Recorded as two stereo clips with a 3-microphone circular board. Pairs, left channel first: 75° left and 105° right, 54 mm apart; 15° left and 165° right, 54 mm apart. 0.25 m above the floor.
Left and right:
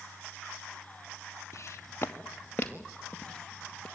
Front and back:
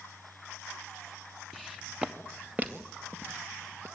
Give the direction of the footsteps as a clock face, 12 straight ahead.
8 o'clock.